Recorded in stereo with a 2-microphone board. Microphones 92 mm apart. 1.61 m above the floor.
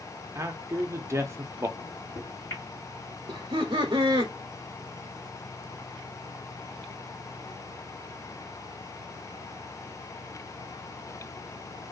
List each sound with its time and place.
0.3 s a man speaking: 30° right (ahead or behind), 0.5 m
1.8 s a microwave: 30° left (ahead or behind), 1.6 m
3.3 s laughter: 60° right (ahead or behind), 0.6 m